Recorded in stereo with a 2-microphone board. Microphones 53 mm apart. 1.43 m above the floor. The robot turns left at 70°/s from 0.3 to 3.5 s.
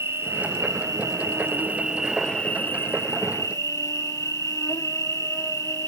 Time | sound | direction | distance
0.0 | an insect | 50° right | 0.8 m